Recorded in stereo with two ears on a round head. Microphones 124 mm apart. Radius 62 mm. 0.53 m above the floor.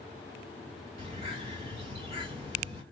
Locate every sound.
1.0 s a bird: 45° right (ahead or behind), 1.6 m